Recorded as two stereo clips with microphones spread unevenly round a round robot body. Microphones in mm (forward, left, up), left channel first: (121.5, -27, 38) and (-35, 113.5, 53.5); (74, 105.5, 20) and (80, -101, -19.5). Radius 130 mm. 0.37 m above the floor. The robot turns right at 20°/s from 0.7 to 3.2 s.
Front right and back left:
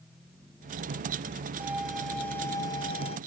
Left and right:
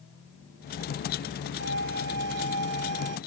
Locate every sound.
1.6 s a violin: 140° right; by 3.2 s 110° right